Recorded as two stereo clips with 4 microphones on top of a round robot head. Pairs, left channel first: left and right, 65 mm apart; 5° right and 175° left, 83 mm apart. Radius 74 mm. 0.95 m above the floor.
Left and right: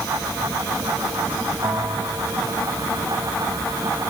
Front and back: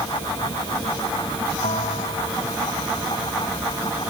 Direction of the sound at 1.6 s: 30° right.